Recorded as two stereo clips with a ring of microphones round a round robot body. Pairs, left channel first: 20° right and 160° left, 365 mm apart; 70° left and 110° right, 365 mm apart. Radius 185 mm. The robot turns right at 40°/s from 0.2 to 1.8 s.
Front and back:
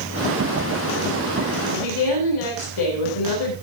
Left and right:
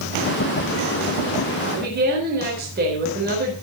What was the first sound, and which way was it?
A woman speaking, 50° right.